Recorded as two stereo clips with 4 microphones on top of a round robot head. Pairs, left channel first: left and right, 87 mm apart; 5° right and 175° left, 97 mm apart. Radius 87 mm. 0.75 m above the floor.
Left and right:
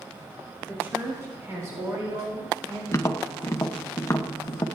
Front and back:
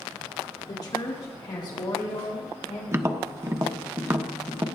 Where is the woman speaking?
30° right, 1.6 m; by 2.8 s 45° right, 2.5 m.